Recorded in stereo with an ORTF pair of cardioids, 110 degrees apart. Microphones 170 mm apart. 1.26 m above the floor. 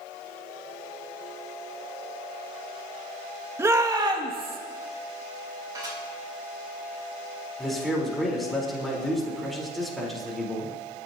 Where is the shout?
15° right, 1.8 m; by 4.6 s 35° right, 2.5 m.